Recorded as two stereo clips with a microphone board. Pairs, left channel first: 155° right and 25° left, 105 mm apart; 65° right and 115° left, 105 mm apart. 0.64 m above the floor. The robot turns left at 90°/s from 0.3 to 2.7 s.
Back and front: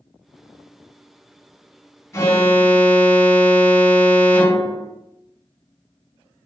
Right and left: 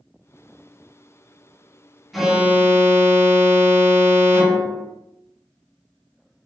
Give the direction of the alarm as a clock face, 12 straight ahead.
5 o'clock.